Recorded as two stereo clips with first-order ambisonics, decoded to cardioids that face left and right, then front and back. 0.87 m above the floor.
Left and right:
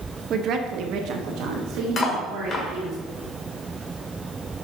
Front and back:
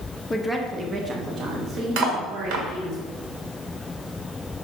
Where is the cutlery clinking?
155° left, 1.6 m.